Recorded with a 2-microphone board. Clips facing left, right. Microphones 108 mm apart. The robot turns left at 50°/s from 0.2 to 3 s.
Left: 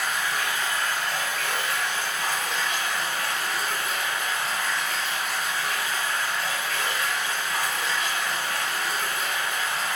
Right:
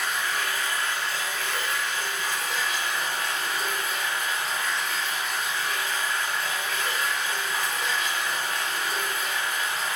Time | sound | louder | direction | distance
0.0 | running water | left 1 dB | 175° left | 1.8 m